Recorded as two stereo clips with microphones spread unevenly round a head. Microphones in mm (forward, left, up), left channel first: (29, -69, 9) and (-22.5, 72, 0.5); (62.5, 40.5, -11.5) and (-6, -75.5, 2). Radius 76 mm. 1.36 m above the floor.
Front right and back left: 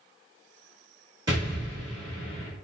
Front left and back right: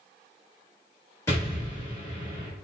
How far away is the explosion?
About 1.1 m.